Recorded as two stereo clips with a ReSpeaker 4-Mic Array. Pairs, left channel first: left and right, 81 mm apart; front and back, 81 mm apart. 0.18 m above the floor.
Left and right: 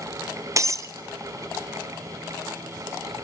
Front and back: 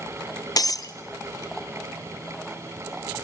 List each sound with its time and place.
0.6 s breaking glass: 40° right, 0.6 m